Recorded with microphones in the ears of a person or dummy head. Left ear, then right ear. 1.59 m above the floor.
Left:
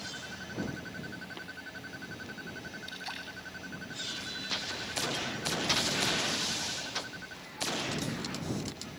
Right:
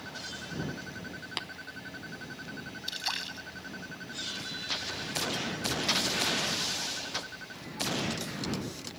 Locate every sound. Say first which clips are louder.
1.4 s tapping: right 7 dB; 50° right (ahead or behind)
2.9 s a splash: right 9 dB; 25° right (ahead or behind)